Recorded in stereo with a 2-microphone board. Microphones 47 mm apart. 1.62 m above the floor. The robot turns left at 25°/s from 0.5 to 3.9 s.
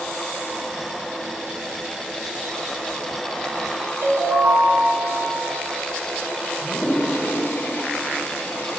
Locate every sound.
4.0 s a ringtone: 65° right (ahead or behind), 2 m
6.6 s a toilet flushing: 55° left (ahead or behind), 1.0 m